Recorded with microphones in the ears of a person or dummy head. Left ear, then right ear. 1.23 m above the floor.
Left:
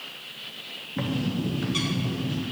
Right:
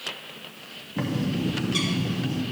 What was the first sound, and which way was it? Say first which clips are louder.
A bird: right 2 dB; 5° right (ahead or behind).